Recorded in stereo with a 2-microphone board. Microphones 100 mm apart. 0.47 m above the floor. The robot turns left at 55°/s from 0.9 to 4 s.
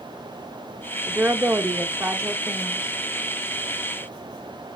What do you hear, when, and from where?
1.1 s a woman speaking: 20° right (ahead or behind), 0.8 m; by 2.9 s 10° right (ahead or behind), 0.8 m